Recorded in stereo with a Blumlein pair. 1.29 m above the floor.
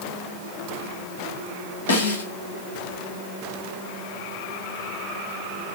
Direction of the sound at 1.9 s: 70° left.